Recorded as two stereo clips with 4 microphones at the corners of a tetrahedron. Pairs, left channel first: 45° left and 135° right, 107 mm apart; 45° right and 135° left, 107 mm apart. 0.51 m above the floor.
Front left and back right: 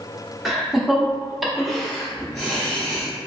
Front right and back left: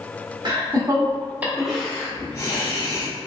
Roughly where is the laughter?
Behind left.